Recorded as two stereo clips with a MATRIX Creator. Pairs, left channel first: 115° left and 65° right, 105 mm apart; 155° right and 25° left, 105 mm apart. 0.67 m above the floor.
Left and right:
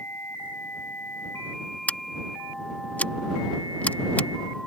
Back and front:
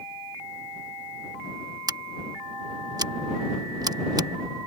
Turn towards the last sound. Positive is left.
turn(degrees=45)